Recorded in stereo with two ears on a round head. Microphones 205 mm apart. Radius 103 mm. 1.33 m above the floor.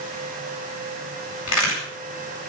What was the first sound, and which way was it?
A crack, 70° left (ahead or behind).